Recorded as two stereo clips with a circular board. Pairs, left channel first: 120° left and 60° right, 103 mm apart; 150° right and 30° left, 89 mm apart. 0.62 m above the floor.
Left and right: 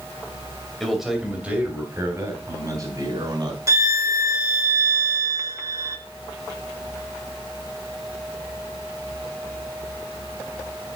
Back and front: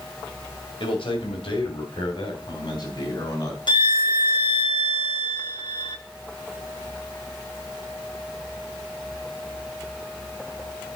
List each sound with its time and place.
0.8 s a man speaking: 150° right, 2.5 m; by 3.6 s 105° right, 4 m
3.7 s a violin: 120° right, 0.9 m